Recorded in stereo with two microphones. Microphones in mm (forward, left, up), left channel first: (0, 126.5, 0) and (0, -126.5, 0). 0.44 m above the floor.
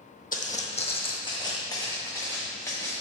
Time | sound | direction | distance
0.3 | footsteps | 35° left (ahead or behind) | 0.7 m